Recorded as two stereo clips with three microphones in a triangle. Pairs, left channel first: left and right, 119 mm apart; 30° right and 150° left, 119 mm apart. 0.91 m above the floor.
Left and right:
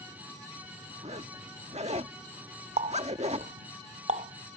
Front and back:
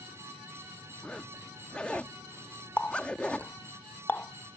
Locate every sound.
1.0 s a zipper: 110° right
2.8 s a running tap: 105° right